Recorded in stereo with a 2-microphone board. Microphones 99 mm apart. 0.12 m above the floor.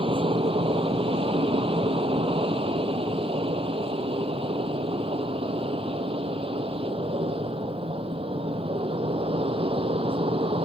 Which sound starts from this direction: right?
An aircraft, at 0.0 s.